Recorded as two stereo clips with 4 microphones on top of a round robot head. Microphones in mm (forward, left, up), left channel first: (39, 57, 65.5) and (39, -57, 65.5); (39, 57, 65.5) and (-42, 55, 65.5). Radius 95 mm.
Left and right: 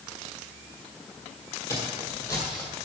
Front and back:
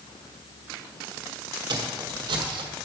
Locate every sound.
1.7 s footsteps: 160° left, 1.6 m